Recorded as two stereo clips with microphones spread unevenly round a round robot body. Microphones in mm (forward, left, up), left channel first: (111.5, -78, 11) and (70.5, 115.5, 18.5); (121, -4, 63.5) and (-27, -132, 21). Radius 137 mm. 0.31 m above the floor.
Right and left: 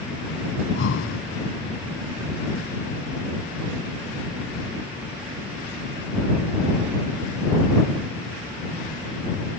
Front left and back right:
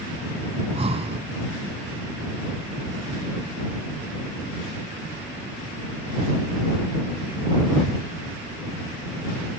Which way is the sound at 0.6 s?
80° right.